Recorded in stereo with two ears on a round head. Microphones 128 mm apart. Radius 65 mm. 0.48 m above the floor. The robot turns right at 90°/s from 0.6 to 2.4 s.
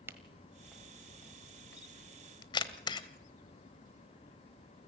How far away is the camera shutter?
About 1.2 m.